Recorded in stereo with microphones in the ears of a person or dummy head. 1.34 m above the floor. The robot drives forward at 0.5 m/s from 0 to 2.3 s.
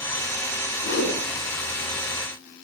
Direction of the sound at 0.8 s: 80° left.